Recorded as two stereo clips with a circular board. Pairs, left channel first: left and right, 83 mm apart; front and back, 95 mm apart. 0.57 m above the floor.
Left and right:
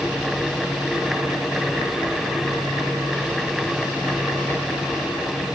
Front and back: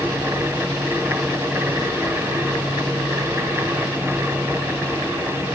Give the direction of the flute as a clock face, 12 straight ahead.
No flute in this recording.